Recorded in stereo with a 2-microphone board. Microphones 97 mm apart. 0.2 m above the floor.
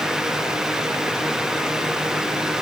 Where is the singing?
I don't hear singing.